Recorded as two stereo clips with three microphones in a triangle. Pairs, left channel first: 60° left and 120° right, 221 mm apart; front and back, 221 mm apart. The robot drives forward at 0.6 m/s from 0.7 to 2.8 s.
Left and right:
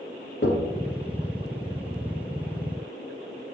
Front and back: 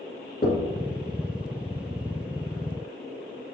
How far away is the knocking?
About 2 m.